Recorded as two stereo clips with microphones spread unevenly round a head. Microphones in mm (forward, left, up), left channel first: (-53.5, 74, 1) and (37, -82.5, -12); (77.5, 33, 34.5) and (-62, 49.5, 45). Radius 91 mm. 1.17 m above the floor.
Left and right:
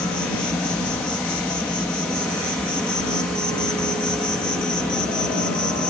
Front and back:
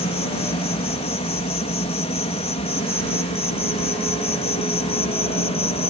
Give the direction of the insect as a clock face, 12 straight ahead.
11 o'clock.